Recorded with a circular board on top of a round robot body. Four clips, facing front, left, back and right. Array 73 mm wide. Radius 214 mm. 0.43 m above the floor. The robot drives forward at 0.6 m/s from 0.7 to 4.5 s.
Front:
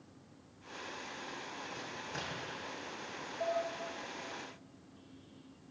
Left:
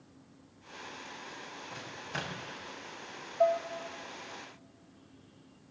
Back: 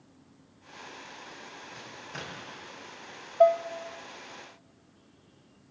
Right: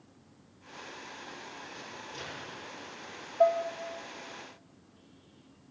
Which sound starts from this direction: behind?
Dishes clattering, at 3.4 s.